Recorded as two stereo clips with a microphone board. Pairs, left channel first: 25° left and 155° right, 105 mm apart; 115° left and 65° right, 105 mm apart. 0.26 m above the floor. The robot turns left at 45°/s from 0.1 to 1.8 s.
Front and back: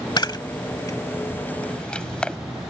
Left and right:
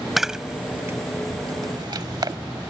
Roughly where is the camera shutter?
Ahead.